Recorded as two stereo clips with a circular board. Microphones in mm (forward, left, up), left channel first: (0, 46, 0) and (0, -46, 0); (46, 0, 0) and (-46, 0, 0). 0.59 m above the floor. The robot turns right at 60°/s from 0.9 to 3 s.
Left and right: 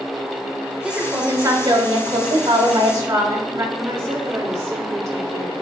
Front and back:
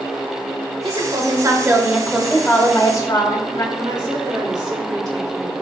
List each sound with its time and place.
0.8 s a woman speaking: 170° right, 1.5 m; by 3.6 s 45° right, 1.5 m
3.8 s a woman speaking: 140° right, 1.9 m